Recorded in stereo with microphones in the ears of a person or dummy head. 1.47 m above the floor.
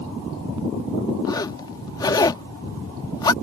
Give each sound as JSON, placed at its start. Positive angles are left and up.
{"t": 1.2, "sound": "a zipper", "side_deg": 25}